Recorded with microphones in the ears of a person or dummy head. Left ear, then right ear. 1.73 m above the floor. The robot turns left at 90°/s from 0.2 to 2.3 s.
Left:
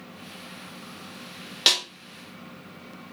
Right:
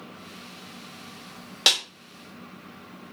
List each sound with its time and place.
1.7 s a snare drum: 10° right (ahead or behind), 0.6 m; by 1.8 s 5° left (ahead or behind), 0.6 m